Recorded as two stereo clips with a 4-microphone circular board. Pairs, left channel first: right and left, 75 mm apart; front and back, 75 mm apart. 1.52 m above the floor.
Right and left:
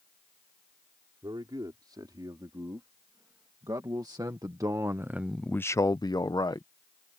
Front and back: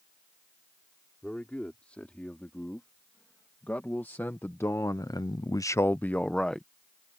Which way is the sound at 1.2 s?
75° left.